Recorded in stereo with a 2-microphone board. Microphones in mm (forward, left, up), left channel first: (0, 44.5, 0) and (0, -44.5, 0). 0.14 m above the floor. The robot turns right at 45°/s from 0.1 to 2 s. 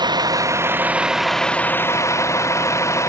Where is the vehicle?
50° right; by 3.1 s 35° left.